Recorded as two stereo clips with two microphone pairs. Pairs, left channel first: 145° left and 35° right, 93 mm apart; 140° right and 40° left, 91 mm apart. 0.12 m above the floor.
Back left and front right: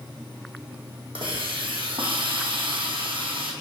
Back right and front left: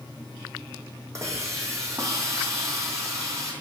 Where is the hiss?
15° right, 1.5 m.